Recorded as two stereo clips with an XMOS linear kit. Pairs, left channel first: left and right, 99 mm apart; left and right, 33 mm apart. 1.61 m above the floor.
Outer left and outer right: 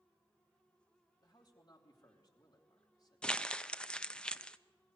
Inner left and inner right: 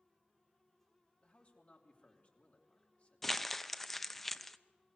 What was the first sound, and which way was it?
A man speaking, 45° left (ahead or behind).